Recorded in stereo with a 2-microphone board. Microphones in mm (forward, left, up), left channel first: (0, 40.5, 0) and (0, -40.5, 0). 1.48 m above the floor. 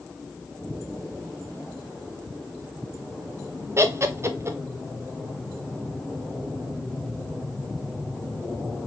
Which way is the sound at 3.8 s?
35° right (ahead or behind).